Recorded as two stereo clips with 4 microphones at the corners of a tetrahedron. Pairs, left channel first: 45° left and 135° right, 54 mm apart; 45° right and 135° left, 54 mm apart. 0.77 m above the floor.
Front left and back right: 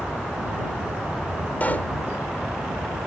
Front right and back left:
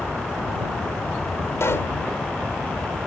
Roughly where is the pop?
Ahead.